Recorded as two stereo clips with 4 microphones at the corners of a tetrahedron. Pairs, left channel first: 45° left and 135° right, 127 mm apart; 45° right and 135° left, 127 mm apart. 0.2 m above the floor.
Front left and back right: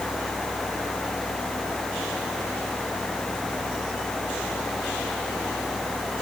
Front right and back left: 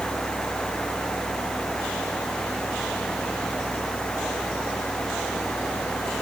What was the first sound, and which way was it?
Only background noise.